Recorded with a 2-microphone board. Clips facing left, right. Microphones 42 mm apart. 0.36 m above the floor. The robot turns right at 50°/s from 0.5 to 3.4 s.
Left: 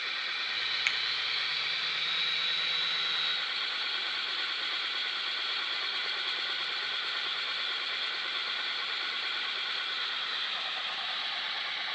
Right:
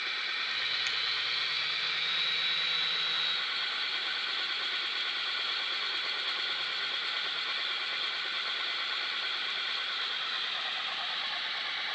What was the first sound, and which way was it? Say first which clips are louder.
A finger snap: left 3 dB; 45° left (ahead or behind).